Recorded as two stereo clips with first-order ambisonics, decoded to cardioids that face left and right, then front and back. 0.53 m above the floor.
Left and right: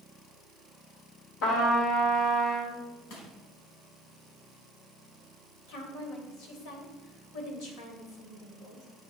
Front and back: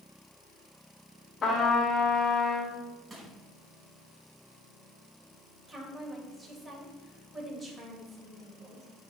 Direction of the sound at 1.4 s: 70° left.